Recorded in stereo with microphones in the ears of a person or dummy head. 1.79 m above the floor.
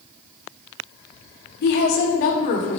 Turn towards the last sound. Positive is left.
turn(degrees=40)  # may be behind; listen again after turning